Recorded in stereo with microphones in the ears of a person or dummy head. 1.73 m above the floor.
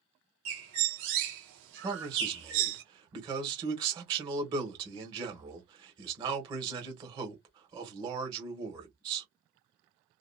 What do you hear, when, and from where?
0.5 s a bird: 60° right (ahead or behind), 1.2 m
1.8 s a man speaking: 25° right (ahead or behind), 1.3 m